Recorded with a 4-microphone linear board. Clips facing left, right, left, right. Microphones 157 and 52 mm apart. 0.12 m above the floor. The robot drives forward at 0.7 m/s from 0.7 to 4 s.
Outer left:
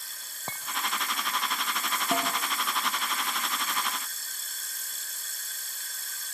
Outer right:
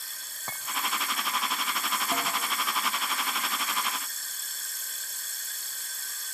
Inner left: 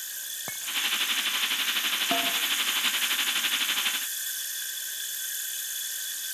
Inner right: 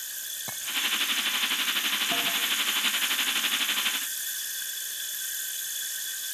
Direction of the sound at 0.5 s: 25° left (ahead or behind).